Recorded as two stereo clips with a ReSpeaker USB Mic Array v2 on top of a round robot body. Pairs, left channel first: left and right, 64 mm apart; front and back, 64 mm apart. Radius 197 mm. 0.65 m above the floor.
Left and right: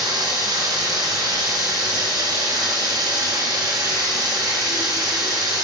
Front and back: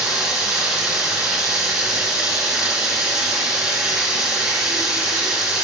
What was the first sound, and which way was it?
Running water, 100° right.